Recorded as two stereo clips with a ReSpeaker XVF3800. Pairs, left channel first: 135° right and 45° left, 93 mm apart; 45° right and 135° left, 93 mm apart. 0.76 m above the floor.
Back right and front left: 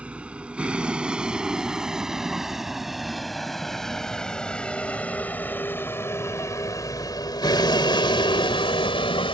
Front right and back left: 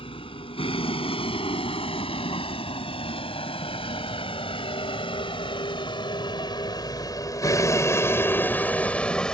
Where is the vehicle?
30° right; by 9.3 s 125° right.